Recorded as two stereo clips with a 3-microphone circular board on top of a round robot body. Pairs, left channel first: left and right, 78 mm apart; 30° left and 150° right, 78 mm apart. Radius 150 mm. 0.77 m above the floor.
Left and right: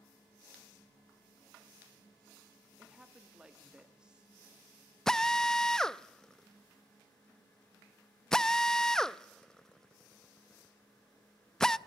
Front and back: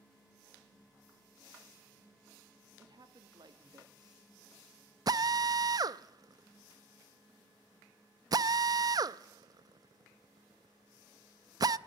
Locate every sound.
2.8 s a woman speaking: 170° right, 2 m
5.1 s a drill: 175° left, 0.5 m